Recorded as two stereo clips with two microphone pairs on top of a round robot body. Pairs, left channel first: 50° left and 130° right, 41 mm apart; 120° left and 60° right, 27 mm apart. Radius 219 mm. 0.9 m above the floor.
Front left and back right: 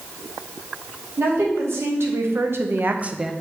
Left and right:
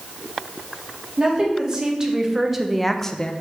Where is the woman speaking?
125° right, 1.6 m; by 3.3 s 130° left, 0.6 m.